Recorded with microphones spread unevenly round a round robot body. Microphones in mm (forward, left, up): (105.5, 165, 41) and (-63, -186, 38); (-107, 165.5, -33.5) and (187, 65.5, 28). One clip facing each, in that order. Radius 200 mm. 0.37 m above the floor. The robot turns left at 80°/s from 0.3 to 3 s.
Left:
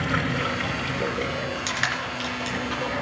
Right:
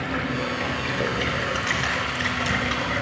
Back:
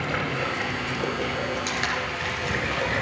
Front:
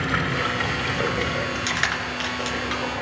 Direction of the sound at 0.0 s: 30° left.